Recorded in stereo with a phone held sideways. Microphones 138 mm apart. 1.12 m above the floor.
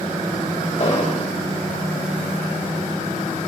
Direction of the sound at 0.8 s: 45° left (ahead or behind).